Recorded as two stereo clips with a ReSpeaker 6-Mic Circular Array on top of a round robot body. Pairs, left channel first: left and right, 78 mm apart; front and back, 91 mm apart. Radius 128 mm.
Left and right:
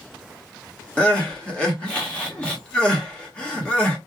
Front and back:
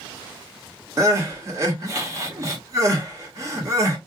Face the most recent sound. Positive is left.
turn(degrees=155)